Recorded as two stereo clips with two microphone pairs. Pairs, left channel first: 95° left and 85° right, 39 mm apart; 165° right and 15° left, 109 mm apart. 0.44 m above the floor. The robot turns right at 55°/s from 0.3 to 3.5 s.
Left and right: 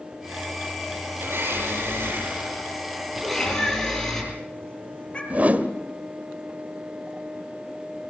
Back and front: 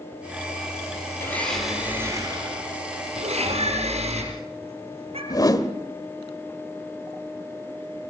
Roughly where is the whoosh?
Behind right.